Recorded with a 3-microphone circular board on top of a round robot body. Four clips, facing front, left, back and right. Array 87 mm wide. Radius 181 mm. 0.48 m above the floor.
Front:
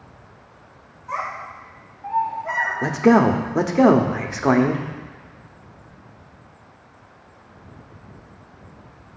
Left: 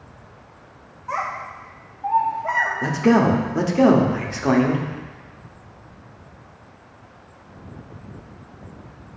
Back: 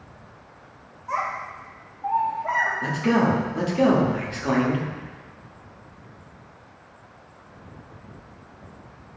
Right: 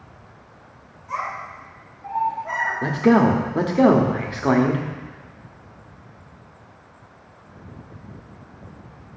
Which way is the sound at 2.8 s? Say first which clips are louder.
Right 1 dB, front 8 dB; 15° right.